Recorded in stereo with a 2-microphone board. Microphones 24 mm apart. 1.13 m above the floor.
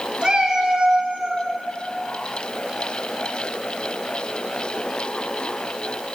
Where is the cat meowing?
35° right (ahead or behind), 1.5 m; by 1.5 s 25° right (ahead or behind), 0.7 m.